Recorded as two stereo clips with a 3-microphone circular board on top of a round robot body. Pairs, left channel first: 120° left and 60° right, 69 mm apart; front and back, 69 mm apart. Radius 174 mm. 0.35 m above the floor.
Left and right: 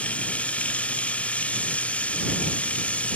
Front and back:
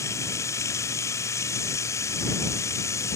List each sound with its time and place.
0.0 s running water: 50° left